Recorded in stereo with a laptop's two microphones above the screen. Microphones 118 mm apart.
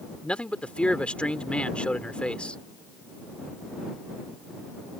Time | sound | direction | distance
0.2 | a man speaking | 10° left (ahead or behind) | ?